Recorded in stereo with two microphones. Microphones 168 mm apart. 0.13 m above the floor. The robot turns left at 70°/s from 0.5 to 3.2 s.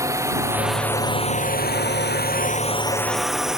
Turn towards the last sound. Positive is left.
turn(degrees=-5)  # may be behind; listen again after turning